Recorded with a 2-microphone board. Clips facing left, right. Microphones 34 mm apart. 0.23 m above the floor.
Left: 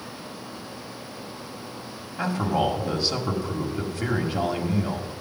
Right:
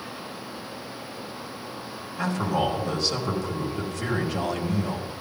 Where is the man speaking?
20° left (ahead or behind), 1.6 m.